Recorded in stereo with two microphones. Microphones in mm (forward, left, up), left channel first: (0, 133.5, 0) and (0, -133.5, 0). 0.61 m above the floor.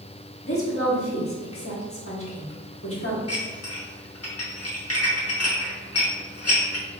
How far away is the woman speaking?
About 1.2 m.